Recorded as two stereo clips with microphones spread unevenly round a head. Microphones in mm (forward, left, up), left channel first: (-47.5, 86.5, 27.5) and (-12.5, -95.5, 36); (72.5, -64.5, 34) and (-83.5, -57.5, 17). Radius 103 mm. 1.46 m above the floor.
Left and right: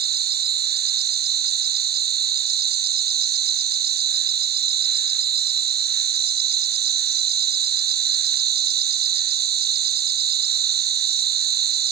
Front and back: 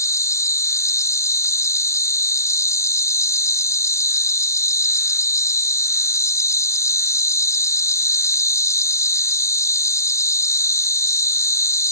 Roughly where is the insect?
Right.